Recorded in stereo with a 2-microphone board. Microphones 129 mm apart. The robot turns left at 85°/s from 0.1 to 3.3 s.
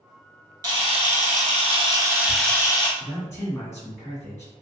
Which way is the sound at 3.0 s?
30° left (ahead or behind).